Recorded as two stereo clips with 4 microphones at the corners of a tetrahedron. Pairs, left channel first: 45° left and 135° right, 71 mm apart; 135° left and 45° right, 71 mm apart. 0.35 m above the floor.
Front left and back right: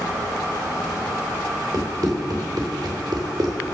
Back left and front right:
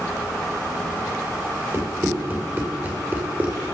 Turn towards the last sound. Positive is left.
turn(degrees=-110)